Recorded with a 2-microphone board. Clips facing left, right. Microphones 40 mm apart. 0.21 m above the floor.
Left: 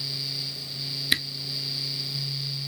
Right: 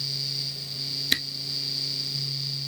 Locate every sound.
1.1 s a camera shutter: 5° left (ahead or behind), 0.7 m